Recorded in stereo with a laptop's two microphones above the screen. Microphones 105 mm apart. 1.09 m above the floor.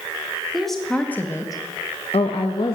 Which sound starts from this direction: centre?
A woman speaking, at 0.5 s.